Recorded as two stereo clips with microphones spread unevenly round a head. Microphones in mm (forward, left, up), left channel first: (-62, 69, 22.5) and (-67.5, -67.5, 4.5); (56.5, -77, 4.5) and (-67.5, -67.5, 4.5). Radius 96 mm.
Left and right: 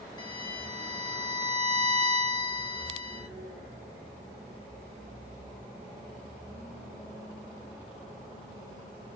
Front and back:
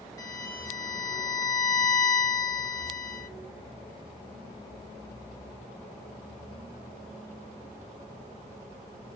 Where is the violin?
50° left, 0.9 m.